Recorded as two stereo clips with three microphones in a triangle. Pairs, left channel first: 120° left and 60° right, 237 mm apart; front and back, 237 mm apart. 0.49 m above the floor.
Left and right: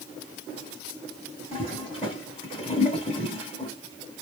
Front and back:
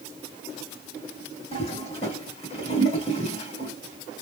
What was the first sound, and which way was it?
A toilet flushing, 55° left.